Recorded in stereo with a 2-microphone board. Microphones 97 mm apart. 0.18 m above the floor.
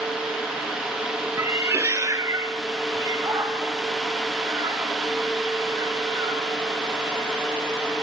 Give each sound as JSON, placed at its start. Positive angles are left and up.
{"t": 1.4, "sound": "a cat meowing", "side_deg": -20, "distance_m": 0.5}